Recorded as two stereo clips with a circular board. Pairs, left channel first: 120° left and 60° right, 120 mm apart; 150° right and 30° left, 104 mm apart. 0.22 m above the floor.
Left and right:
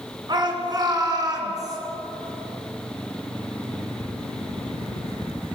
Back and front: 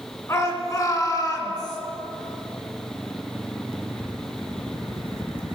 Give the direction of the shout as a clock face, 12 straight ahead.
3 o'clock.